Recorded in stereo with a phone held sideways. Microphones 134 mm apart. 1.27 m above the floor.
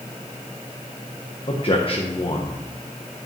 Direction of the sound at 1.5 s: 45° left (ahead or behind).